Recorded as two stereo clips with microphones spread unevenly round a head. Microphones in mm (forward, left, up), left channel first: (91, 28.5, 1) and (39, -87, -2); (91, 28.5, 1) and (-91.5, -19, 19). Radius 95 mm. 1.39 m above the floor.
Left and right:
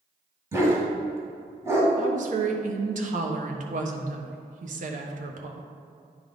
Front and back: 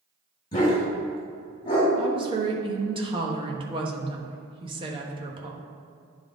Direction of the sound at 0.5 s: 55° right.